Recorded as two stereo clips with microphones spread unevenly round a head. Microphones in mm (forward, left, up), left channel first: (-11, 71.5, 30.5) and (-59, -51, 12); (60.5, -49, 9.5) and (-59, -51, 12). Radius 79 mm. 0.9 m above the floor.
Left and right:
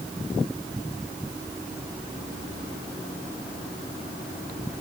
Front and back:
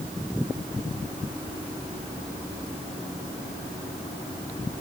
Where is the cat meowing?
No cat meowing in this recording.